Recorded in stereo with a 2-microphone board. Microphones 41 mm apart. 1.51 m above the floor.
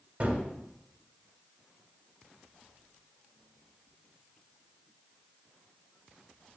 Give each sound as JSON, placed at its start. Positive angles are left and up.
{"t": 0.2, "sound": "a gunshot", "side_deg": -35, "distance_m": 2.5}